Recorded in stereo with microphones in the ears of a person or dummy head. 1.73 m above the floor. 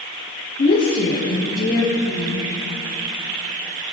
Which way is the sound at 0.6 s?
40° left (ahead or behind).